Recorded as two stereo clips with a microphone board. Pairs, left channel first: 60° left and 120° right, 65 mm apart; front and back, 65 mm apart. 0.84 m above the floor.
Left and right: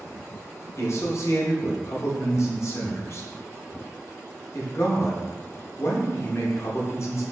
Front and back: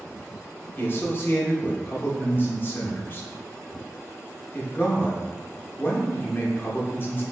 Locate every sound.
0.8 s a man speaking: 45° left, 0.8 m